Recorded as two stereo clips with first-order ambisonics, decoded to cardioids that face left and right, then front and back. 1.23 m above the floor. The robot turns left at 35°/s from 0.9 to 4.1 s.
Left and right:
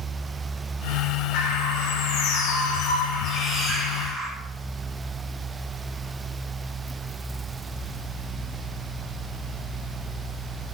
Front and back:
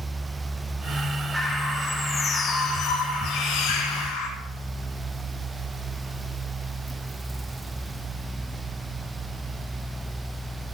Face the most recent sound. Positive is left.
turn(degrees=10)